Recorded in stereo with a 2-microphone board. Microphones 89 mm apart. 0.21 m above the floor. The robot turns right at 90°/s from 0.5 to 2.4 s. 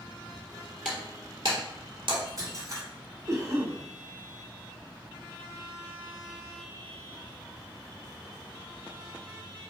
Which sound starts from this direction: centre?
Breaking glass, at 0.8 s.